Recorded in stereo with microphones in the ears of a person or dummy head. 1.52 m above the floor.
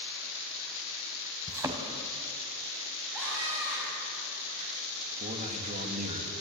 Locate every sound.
1.5 s a thud: 20° right (ahead or behind), 2.5 m
3.1 s a scream: 5° left (ahead or behind), 8.5 m
5.2 s a man speaking: 40° right (ahead or behind), 3 m